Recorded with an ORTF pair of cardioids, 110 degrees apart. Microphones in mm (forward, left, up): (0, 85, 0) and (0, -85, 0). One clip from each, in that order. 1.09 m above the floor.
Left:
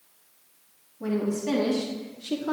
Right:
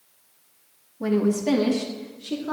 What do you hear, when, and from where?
1.0 s a woman speaking: 35° right, 1.5 m; by 2.5 s 25° left, 0.8 m